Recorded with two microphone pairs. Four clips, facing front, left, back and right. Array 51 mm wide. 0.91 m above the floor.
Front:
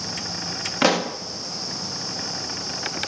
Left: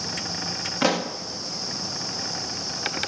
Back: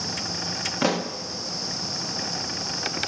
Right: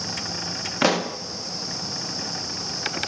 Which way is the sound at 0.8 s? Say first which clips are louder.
Right 2 dB, front 5 dB; 45° right.